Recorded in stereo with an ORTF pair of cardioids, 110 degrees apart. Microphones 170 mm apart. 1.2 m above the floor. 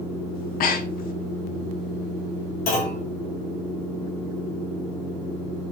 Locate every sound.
0.3 s breathing: 60° left, 1.4 m
2.7 s a clunk: 60° left, 4 m